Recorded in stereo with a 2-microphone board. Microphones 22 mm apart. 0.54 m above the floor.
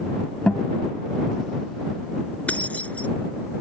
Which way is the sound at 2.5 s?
85° left.